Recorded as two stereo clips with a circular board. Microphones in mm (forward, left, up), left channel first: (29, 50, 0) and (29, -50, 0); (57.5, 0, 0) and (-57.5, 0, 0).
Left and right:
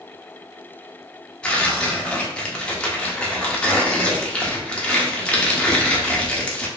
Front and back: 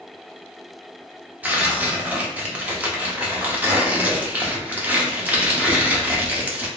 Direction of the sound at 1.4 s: 145° left.